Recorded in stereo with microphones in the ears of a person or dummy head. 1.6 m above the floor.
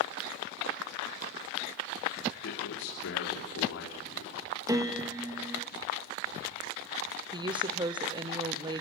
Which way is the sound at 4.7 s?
20° right (ahead or behind).